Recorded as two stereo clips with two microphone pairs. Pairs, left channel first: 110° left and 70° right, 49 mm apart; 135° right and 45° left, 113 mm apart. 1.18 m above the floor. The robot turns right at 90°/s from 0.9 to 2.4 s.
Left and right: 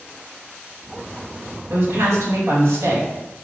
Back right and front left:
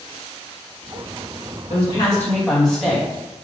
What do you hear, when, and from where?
1.7 s a woman speaking: 110° right, 1.8 m; by 3.1 s 50° right, 1.8 m